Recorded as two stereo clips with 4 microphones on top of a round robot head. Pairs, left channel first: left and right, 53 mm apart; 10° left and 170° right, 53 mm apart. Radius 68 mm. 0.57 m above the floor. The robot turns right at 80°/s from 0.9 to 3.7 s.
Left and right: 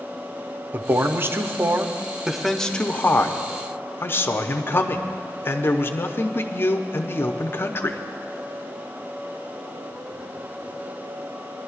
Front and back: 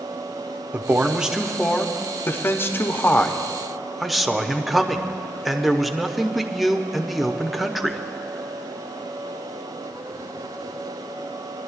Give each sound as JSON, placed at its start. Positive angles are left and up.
{"t": 0.7, "sound": "a man speaking", "azimuth_deg": -125, "distance_m": 0.8}